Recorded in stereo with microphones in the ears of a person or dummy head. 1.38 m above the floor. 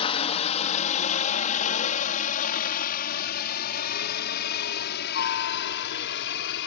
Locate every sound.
0.0 s a helicopter: 30° left (ahead or behind); by 6.7 s 60° left (ahead or behind)